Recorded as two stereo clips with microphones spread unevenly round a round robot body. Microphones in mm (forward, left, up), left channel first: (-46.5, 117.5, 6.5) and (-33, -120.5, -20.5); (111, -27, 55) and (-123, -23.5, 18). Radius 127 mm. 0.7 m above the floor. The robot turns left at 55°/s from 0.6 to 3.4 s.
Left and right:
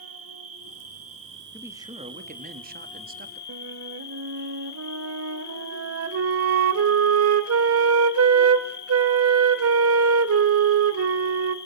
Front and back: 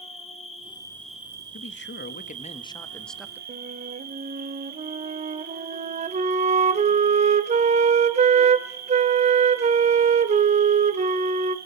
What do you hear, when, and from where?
0.0 s an insect: 65° right, 2.5 m; by 11.7 s 140° left, 2.5 m
1.5 s a man speaking: 10° right, 1.1 m; by 3.4 s 115° right, 1.1 m
3.5 s a flute: 115° right, 1.1 m